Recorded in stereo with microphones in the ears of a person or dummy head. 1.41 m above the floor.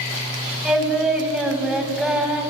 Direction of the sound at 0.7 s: 5° right (ahead or behind).